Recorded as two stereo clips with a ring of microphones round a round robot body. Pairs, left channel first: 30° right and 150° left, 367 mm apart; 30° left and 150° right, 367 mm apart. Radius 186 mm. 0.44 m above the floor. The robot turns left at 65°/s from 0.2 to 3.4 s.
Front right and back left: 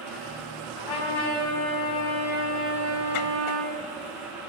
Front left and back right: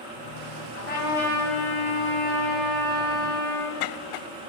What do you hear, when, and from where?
0.8 s a trumpet: 25° right, 4 m; by 3.8 s 160° left, 4 m